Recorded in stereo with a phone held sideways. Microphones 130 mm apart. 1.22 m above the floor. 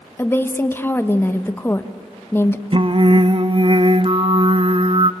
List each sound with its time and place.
0.2 s a woman speaking: 15° left (ahead or behind), 1.2 m
2.7 s singing: 45° right (ahead or behind), 0.8 m